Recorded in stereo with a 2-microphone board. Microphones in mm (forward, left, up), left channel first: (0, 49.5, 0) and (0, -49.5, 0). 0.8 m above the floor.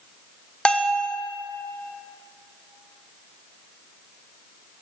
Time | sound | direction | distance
0.7 | a bell | 10° left (ahead or behind) | 0.6 m